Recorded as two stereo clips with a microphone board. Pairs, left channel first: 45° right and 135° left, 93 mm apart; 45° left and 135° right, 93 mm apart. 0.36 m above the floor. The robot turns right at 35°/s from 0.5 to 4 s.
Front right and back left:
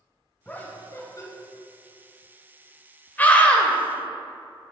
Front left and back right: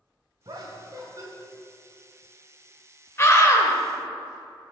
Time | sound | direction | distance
0.5 | laughter | 115° right | 1.6 m
3.2 | a scream | 10° left | 1.0 m